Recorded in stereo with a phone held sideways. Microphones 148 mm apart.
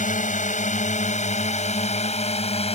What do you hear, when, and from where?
0.0 s a drone: 60° left (ahead or behind); by 2.8 s 45° left (ahead or behind)